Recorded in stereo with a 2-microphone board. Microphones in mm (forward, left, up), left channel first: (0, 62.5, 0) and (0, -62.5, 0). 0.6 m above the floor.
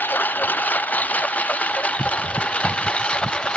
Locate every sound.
0.0 s a lawn mower: 15° left (ahead or behind); by 3.6 s 10° left (ahead or behind)